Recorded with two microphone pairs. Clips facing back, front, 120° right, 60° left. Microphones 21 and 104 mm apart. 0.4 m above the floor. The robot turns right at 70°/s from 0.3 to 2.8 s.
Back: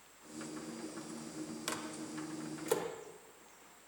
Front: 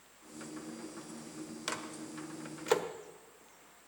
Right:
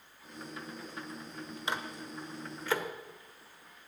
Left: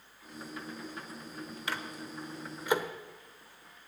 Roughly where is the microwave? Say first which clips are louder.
Front 3 dB, right 2 dB; right.